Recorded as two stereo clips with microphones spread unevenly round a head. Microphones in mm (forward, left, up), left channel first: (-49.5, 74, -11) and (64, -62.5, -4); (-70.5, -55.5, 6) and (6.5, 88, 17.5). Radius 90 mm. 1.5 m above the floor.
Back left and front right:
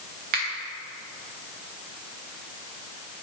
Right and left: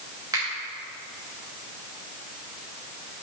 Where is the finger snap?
10° right, 2.5 m.